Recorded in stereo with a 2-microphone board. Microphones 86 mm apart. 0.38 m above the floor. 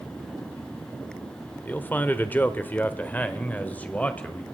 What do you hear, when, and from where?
1.6 s a man speaking: 20° left (ahead or behind), 1.2 m; by 4.4 s 15° left (ahead or behind), 1.9 m